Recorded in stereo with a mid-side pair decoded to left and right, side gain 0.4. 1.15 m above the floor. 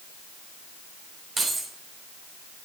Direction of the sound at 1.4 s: 45° right.